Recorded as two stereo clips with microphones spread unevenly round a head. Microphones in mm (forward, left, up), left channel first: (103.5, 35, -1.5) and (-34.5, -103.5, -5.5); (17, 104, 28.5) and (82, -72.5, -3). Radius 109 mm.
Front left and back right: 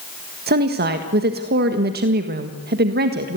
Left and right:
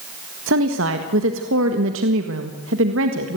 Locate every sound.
0.5 s a woman speaking: 95° right, 1.6 m